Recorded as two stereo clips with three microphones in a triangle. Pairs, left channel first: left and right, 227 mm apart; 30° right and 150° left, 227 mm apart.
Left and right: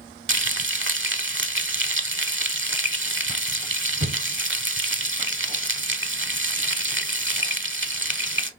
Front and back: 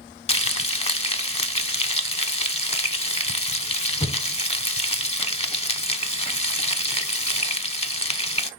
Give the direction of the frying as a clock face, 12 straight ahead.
3 o'clock.